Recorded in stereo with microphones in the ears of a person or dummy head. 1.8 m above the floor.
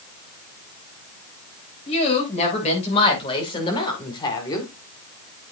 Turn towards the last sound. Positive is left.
turn(degrees=15)  # may be behind; listen again after turning